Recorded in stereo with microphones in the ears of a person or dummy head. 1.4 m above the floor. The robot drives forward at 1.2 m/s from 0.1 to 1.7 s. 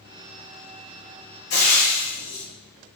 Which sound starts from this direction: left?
Frying, at 1.5 s.